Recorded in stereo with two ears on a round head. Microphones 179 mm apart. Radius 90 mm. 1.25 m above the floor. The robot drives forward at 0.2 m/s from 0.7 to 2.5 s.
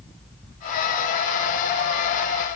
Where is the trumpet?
No trumpet in this recording.